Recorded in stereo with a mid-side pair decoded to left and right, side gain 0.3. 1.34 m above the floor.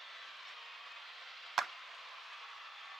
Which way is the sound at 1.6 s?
60° right.